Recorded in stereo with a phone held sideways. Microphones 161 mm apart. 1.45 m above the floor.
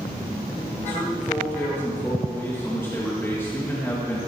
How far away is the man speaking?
About 1.9 m.